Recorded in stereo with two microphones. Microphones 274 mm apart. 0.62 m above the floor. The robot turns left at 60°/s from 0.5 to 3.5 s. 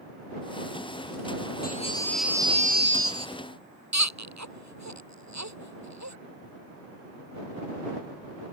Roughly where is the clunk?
No clunk in this recording.